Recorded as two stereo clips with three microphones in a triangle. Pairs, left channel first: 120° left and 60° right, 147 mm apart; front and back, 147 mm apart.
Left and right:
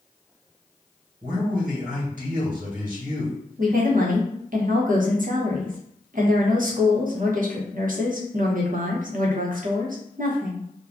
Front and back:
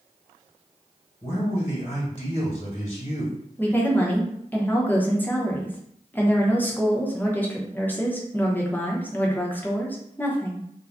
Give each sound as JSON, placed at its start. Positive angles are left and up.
{"t": 1.2, "sound": "a man speaking", "azimuth_deg": -40, "distance_m": 1.3}
{"t": 3.6, "sound": "a woman speaking", "azimuth_deg": -80, "distance_m": 0.7}